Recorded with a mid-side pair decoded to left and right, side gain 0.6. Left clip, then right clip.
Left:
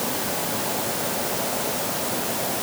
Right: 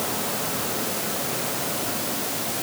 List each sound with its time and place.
Only background noise.